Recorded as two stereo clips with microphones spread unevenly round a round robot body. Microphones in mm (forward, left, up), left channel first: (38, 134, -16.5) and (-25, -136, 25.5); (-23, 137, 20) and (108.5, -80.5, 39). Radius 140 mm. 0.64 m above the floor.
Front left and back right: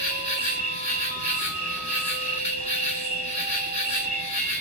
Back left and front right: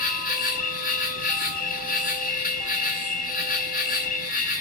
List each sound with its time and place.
0.0 s an insect: 115° left, 1.0 m